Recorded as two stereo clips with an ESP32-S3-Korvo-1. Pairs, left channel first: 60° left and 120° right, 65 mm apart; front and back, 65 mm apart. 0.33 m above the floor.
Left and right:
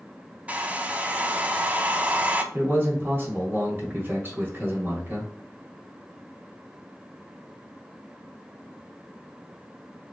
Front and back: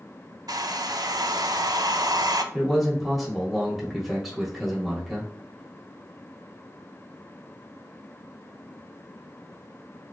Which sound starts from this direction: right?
A man speaking, at 2.5 s.